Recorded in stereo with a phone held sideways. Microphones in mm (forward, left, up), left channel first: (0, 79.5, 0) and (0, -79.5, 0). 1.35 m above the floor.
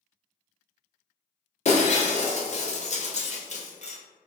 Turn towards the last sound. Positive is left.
turn(degrees=50)  # may be behind; listen again after turning